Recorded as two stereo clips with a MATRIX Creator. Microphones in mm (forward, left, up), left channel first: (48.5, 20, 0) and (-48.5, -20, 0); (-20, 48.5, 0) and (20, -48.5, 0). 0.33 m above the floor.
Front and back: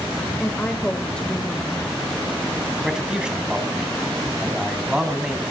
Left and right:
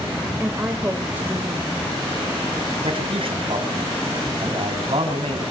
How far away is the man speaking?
About 2.5 m.